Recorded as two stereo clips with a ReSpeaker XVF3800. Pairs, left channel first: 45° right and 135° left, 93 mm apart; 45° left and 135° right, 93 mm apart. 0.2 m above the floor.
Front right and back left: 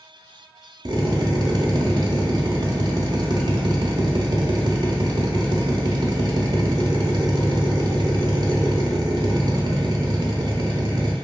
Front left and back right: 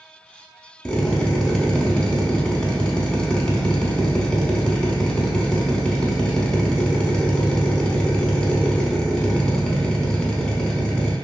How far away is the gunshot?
I don't hear a gunshot.